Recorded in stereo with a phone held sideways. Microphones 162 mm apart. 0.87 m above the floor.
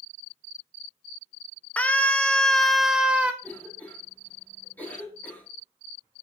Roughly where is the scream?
Centre.